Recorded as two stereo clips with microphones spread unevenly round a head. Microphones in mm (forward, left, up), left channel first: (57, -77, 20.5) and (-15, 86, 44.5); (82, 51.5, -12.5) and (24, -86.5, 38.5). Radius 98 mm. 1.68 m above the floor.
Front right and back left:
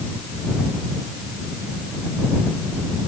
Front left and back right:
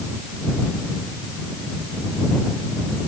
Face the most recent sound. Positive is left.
No sound to turn to.